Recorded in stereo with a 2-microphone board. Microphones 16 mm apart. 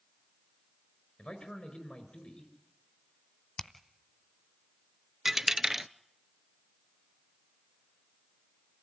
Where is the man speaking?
70° left (ahead or behind), 4.5 m.